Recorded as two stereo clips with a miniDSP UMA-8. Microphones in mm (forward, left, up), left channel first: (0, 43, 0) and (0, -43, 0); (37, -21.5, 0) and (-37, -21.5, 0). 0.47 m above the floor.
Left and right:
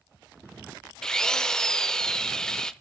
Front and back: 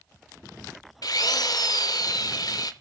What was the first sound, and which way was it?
A drill, 10° left.